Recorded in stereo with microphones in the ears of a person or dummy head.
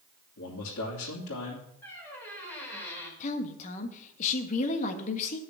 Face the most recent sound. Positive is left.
turn(degrees=40)  # may be behind; listen again after turning